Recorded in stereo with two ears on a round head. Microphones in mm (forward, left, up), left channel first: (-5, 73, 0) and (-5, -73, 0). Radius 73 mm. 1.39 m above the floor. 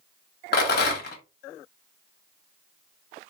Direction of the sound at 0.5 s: 65° left (ahead or behind).